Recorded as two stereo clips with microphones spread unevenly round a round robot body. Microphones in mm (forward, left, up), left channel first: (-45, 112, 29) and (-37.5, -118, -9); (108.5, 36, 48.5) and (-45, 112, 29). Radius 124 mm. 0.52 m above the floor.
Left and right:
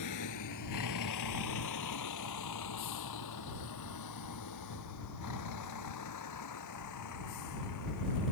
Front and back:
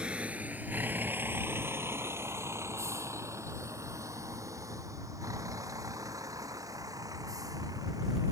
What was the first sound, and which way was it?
A vehicle, 70° left.